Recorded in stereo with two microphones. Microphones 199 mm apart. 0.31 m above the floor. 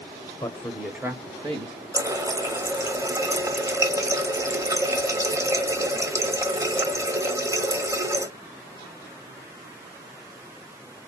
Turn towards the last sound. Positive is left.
turn(degrees=-15)  # may be behind; listen again after turning